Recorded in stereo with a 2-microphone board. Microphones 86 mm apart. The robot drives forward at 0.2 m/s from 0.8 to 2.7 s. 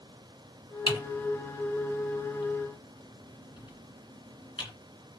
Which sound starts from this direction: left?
Typing on a keyboard, at 0.9 s.